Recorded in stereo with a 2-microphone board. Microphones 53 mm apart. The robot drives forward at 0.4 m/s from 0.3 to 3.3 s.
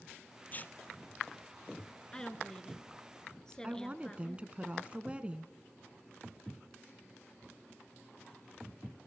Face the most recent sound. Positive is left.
turn(degrees=-25)  # may be behind; listen again after turning